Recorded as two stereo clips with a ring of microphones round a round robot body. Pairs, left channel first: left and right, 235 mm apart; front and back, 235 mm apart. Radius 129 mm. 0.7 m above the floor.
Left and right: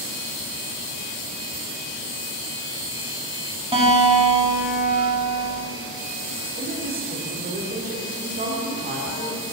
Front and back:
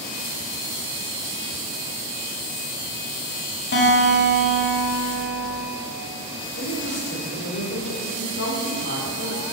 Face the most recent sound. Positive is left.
turn(degrees=-40)